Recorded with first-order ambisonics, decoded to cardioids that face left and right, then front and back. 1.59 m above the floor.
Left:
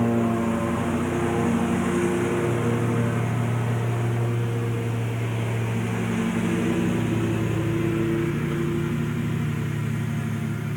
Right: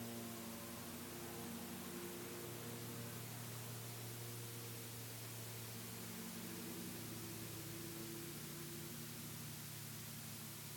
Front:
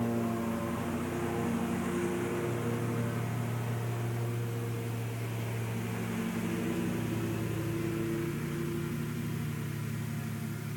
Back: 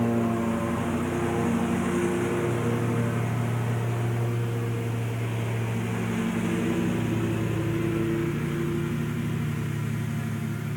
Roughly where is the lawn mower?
Left.